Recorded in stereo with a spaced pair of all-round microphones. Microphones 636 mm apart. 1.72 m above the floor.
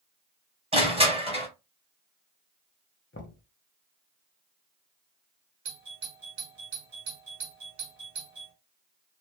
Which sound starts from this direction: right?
A doorbell, at 5.7 s.